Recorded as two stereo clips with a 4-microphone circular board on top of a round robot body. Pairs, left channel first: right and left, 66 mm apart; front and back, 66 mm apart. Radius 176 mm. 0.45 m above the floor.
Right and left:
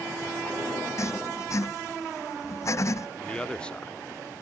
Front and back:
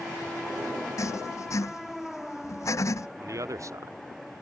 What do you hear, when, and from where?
1.0 s writing: 45° right
3.2 s a man speaking: 160° right